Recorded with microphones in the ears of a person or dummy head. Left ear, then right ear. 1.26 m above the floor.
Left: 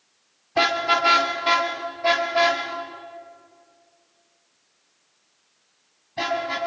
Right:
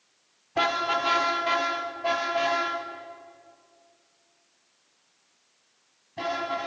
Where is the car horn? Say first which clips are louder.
Left 5 dB; 20° left (ahead or behind), 2 m; by 6.7 s 25° left (ahead or behind), 6.5 m.